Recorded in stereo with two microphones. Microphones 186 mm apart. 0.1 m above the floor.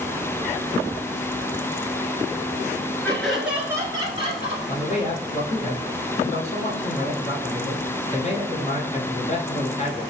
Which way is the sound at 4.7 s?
35° left (ahead or behind).